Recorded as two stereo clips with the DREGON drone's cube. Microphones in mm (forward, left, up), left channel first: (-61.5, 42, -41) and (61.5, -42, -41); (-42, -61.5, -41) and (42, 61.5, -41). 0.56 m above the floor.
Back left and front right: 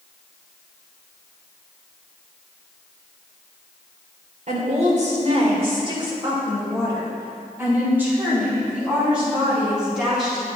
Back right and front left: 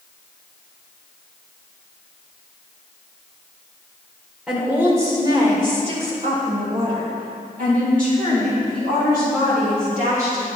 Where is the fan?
I don't hear a fan.